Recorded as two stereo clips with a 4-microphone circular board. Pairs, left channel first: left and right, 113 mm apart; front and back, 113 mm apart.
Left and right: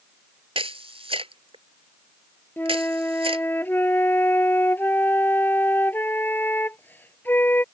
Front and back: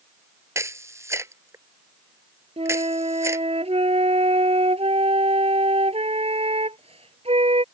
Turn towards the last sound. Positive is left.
turn(degrees=160)